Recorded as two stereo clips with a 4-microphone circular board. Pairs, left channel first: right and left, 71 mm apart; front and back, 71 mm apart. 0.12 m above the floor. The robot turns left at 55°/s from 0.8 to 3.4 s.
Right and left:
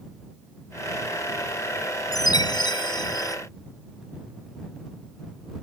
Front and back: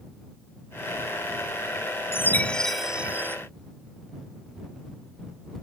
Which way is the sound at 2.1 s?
55° right.